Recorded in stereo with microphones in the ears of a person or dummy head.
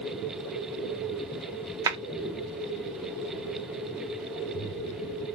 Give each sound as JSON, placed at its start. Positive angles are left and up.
{"t": 1.9, "sound": "a clap", "side_deg": -20, "distance_m": 0.9}